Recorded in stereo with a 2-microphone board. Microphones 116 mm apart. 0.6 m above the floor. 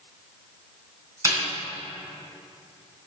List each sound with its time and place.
1.2 s a snare drum: 25° right (ahead or behind), 2 m